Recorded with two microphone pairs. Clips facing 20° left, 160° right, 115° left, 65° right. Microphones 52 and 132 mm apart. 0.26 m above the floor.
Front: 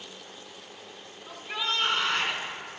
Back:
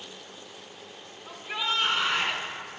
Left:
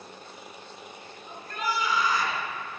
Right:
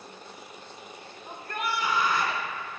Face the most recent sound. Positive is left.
turn(degrees=-75)